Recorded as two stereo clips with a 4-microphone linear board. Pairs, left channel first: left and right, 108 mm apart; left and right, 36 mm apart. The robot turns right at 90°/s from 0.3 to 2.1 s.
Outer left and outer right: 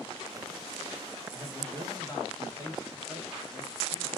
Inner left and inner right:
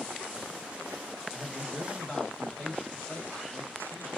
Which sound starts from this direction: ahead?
A man speaking, at 1.3 s.